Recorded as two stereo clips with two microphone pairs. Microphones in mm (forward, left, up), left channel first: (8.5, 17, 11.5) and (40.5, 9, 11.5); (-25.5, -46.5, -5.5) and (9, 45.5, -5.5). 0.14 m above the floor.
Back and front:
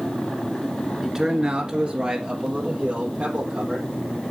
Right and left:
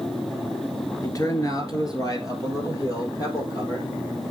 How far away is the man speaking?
About 1.5 m.